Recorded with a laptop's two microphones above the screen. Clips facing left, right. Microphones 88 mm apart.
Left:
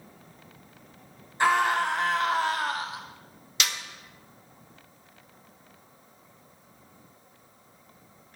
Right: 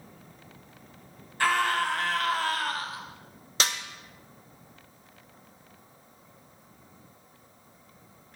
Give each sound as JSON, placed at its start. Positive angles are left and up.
{"t": 1.4, "sound": "a scream", "side_deg": 20, "distance_m": 0.8}
{"t": 3.6, "sound": "a snare drum", "side_deg": -40, "distance_m": 0.8}